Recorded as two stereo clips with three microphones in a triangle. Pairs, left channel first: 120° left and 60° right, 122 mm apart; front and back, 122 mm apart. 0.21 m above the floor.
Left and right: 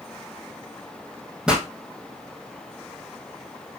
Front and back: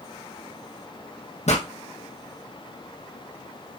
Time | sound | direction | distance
1.5 | a pop | 25° left | 2.5 m